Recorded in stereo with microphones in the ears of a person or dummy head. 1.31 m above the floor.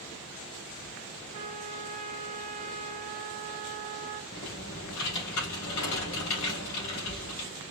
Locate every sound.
1.3 s a trumpet: 35° right (ahead or behind), 1.0 m
4.3 s typing on a keyboard: 65° left (ahead or behind), 3 m